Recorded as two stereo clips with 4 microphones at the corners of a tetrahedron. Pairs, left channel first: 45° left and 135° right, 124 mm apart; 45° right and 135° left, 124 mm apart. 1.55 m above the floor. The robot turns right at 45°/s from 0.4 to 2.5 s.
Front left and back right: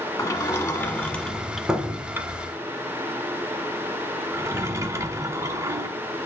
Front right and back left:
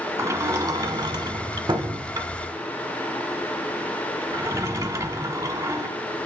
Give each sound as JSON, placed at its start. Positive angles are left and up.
{"t": 0.2, "sound": "a sliding door", "azimuth_deg": 85, "distance_m": 1.3}